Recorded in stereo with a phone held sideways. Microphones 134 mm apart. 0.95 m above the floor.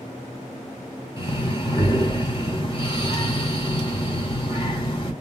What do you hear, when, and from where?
1.2 s breathing: 40° left (ahead or behind), 2.5 m